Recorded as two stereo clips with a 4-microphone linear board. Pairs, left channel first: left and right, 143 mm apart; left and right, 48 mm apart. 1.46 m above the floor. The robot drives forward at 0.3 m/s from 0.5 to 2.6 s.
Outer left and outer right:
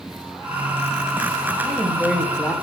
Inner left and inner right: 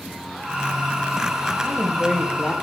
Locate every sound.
1.6 s a woman speaking: centre (ahead or behind), 0.9 m